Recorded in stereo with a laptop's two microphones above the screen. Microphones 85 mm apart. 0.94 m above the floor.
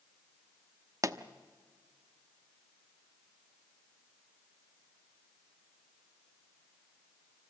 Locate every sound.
1.0 s a pop: 40° right (ahead or behind), 0.9 m